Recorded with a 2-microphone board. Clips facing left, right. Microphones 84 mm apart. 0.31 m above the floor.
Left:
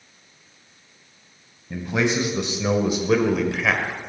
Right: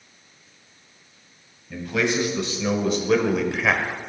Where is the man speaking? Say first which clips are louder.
Left 1 dB; 25° left (ahead or behind), 2 m; by 4.0 s 15° right (ahead or behind), 1.5 m.